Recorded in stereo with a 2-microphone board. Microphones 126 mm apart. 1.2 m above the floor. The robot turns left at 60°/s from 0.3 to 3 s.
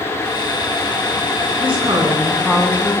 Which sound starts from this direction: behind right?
A woman speaking, at 1.6 s.